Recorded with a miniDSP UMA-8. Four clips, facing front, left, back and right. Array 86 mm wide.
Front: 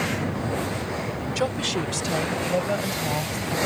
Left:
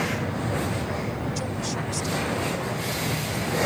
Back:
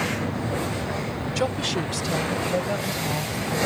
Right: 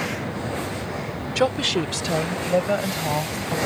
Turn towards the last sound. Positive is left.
turn(degrees=-75)